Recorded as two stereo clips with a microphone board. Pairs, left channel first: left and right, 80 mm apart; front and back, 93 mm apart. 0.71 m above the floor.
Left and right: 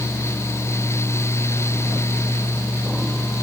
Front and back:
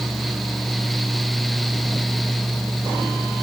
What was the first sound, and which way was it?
Only background noise.